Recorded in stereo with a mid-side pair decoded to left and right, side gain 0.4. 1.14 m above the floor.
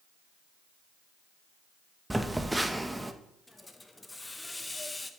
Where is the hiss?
20° left, 0.9 m.